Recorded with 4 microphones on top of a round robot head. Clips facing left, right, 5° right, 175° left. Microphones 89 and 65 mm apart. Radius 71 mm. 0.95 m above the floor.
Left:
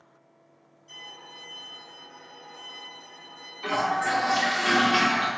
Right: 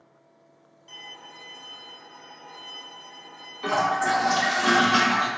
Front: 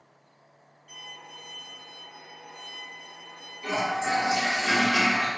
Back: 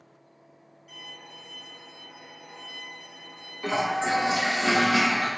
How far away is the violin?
About 1.8 m.